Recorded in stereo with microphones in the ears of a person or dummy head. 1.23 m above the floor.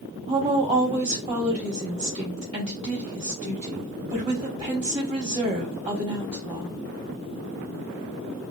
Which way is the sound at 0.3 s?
35° right (ahead or behind).